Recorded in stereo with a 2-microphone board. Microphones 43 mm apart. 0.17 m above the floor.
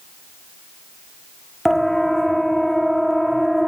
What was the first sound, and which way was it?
A siren, 5° left (ahead or behind).